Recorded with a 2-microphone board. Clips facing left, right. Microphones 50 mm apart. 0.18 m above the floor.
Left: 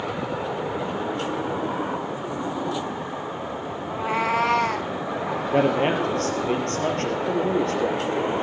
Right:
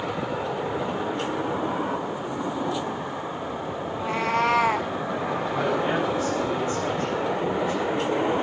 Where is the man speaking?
75° left (ahead or behind), 3.5 m.